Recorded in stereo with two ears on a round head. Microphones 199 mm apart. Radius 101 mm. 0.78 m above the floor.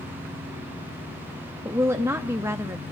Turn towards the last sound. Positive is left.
turn(degrees=-10)  # may be behind; listen again after turning